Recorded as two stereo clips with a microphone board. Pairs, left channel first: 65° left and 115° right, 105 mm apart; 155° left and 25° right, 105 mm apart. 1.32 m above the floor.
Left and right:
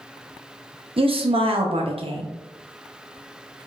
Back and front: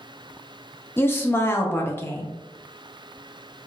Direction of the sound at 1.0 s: 135° right.